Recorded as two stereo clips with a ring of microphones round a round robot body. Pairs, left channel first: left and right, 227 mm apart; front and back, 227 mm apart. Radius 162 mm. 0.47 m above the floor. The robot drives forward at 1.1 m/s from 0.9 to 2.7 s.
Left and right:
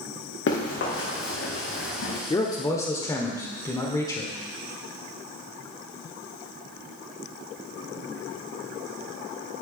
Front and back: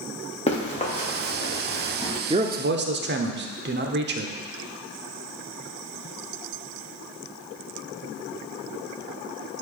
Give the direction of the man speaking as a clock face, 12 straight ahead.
7 o'clock.